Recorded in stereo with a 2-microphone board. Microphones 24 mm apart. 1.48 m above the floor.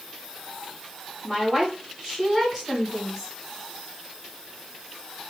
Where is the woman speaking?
Centre (ahead or behind), 2.5 m.